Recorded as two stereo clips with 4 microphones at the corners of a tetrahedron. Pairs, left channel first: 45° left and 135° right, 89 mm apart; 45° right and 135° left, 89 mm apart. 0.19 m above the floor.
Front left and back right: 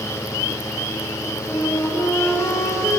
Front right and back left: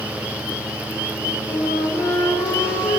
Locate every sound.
1.5 s a flute: 15° right, 10 m